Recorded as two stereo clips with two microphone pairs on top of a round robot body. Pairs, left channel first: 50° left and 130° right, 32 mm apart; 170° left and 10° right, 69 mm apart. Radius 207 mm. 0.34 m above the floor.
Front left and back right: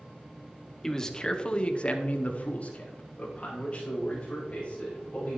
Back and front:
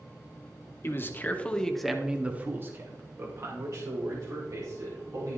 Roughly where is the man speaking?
Behind left.